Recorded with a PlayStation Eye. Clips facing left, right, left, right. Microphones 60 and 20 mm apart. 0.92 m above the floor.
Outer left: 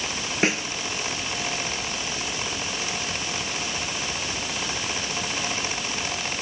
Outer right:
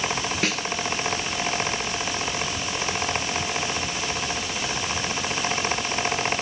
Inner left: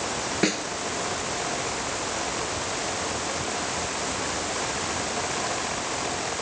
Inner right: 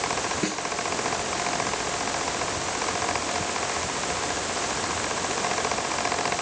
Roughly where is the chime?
No chime in this recording.